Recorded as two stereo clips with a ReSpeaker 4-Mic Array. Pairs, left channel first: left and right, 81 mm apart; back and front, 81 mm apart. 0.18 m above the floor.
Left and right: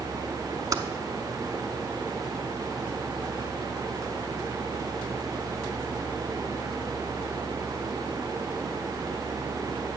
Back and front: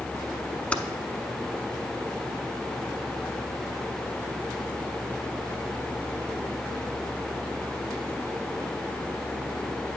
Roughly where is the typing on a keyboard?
Right.